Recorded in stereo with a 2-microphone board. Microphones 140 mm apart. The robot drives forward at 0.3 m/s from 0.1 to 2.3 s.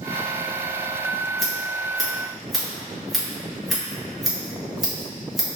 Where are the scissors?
Centre (ahead or behind), 1.9 m.